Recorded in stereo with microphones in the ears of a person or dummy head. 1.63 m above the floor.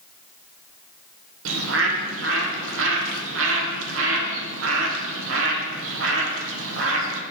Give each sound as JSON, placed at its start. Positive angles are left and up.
{"t": 1.4, "sound": "a bird", "side_deg": -75, "distance_m": 1.2}